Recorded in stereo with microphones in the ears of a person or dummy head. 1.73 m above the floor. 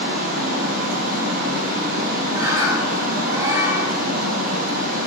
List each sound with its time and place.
0.0 s running water: 45° right (ahead or behind), 1.0 m
2.3 s a bird: 15° right (ahead or behind), 1.3 m